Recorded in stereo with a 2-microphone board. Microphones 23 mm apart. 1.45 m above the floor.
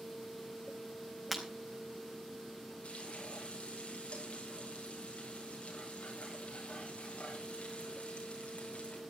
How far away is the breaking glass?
About 4 m.